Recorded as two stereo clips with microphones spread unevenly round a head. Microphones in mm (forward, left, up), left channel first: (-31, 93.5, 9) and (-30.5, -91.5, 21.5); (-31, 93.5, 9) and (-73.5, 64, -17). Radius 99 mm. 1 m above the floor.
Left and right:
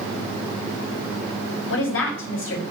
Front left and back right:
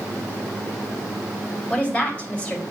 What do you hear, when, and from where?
1.7 s a woman speaking: 100° left, 4.5 m